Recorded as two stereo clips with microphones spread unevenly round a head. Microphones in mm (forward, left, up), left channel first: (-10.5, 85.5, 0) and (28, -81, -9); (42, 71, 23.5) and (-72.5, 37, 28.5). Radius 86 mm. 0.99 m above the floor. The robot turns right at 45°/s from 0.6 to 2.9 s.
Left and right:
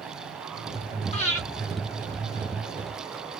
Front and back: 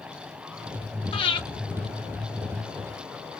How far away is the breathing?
About 1.1 m.